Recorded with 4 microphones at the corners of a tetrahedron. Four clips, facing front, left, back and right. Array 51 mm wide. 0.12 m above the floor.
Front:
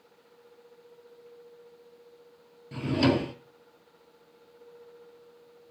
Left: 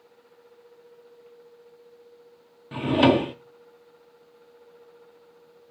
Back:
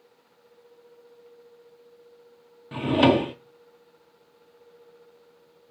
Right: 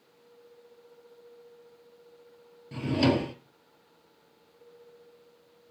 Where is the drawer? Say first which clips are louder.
Left 6 dB, back 6 dB; 135° left, 0.7 m.